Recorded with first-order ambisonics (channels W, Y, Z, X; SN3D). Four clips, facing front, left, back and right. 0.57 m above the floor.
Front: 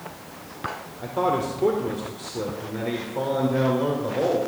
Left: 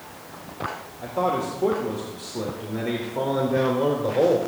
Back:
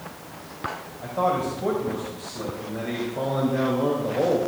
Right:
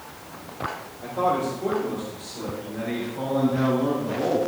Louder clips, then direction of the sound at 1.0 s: Right 1 dB, even; 20° left.